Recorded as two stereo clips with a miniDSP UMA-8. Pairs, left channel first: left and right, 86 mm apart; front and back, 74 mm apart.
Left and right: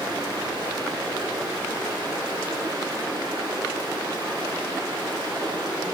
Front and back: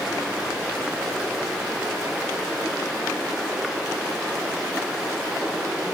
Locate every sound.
0.0 s running water: 100° right, 3 m